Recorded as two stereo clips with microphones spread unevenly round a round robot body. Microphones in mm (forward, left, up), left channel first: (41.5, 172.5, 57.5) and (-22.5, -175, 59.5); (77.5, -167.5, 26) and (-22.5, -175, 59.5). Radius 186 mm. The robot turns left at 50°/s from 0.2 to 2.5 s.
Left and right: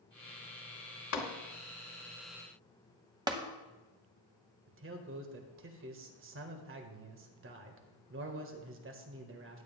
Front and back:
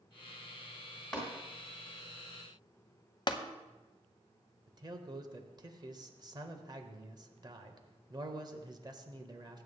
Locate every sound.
1.1 s tapping: 65° left, 2 m; by 1.3 s 55° left, 2 m
3.3 s tapping: 20° right, 0.9 m
4.7 s a man speaking: 125° right, 1.3 m